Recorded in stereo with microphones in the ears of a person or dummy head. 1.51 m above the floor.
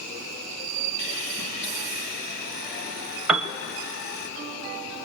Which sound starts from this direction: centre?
A piano, at 3.3 s.